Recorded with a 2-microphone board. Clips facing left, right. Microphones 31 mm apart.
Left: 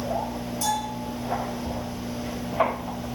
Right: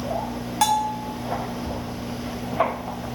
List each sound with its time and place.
0.6 s a bell: 75° right (ahead or behind), 3.5 m